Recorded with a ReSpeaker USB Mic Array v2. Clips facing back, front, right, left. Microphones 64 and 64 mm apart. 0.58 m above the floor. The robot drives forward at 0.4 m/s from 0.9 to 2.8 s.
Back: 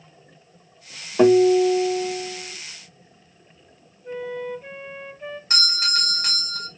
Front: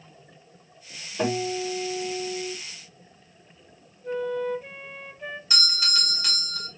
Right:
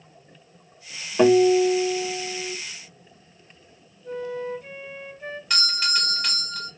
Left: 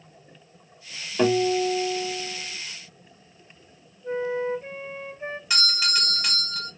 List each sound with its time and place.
1.2 s a guitar: 155° right, 1.2 m; by 2.5 s 165° right, 1.7 m
4.0 s a flute: 95° left, 0.6 m
5.5 s a doorbell: 175° left, 1.5 m